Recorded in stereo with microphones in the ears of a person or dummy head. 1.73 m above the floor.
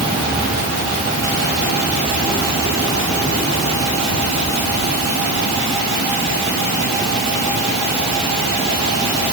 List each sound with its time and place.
Only background noise.